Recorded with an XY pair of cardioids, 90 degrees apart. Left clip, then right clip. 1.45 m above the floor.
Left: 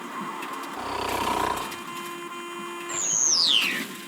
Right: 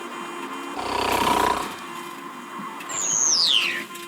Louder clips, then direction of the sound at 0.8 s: Right 6 dB; 60° right.